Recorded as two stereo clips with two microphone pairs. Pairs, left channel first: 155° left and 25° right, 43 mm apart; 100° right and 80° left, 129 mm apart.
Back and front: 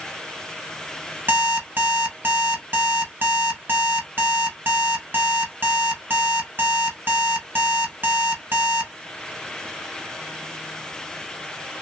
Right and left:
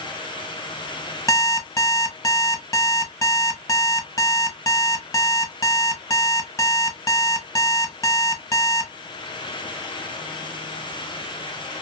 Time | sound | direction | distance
1.3 | an alarm clock | 40° right | 0.8 m